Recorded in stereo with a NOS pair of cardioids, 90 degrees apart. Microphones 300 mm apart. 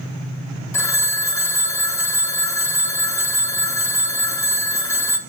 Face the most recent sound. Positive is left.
turn(degrees=10)